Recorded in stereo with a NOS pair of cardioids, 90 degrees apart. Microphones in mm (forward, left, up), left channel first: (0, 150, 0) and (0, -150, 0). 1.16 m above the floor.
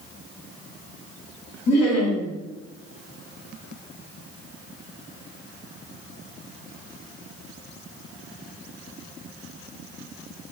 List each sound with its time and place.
1.7 s laughter: 65° left, 1.7 m